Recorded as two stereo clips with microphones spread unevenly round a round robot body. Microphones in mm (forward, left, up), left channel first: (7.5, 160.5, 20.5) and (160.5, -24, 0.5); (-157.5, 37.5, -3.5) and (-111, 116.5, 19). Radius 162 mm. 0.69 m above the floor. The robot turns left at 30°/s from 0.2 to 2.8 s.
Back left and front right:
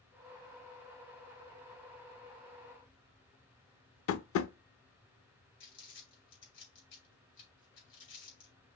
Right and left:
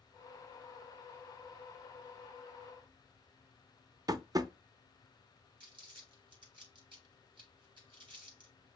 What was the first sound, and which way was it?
Tapping, 105° left.